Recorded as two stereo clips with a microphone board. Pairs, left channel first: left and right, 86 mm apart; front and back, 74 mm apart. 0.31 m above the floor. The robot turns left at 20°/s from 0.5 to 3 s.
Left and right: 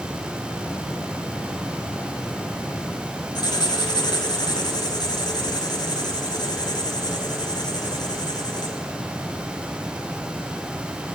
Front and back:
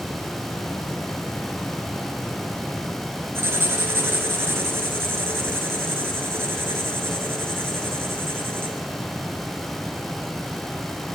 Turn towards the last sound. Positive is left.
turn(degrees=125)